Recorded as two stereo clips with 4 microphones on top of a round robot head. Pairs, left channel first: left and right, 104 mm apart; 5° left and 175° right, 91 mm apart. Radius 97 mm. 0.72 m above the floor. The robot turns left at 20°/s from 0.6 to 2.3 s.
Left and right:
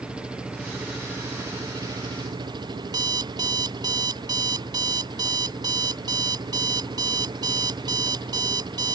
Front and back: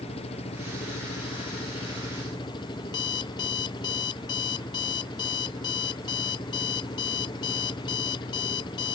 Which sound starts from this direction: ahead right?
An alarm clock, at 2.9 s.